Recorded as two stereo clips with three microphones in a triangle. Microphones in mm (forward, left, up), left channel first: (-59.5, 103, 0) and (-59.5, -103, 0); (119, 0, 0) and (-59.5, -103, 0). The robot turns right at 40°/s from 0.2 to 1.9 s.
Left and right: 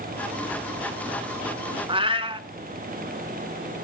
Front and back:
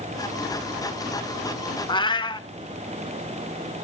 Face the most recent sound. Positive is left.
turn(degrees=-35)